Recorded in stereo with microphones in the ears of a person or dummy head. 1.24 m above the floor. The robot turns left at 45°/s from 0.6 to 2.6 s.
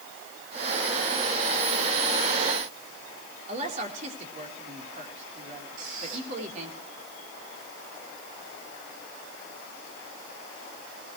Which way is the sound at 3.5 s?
40° right (ahead or behind).